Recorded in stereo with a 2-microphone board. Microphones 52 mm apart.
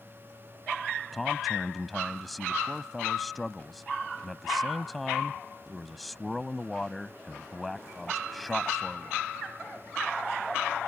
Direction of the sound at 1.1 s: Centre (ahead or behind).